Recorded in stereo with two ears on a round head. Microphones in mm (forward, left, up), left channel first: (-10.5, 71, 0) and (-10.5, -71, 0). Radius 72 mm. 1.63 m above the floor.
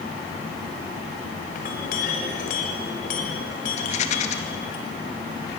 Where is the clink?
55° left (ahead or behind), 6 m.